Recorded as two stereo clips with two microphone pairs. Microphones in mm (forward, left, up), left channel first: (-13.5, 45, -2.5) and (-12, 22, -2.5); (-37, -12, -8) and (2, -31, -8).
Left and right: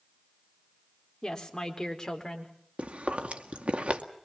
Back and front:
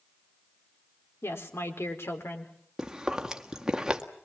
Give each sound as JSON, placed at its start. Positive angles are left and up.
{"t": 1.2, "sound": "a woman speaking", "azimuth_deg": 150, "distance_m": 4.0}
{"t": 2.8, "sound": "chewing", "azimuth_deg": -100, "distance_m": 1.8}